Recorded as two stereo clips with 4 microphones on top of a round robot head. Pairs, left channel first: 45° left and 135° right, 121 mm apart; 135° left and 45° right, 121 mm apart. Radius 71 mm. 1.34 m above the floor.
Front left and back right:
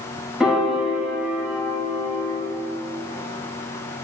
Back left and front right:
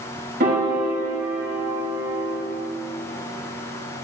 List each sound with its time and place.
0.4 s a piano: 50° right, 3 m